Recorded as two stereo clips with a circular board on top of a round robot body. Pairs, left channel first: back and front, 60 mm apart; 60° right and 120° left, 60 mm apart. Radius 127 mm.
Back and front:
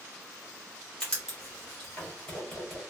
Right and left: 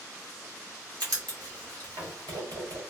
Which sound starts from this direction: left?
Writing, at 1.0 s.